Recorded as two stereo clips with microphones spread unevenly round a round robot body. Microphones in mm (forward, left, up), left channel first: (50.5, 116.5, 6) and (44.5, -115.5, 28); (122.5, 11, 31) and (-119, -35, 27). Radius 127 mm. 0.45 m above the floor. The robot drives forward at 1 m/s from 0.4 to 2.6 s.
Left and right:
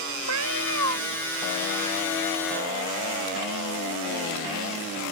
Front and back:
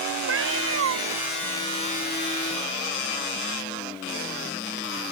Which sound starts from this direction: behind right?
A cat meowing, at 0.3 s.